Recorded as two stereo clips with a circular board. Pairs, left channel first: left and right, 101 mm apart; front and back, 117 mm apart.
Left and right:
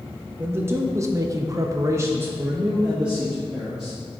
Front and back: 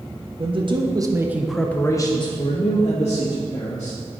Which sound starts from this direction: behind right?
A man speaking, at 0.4 s.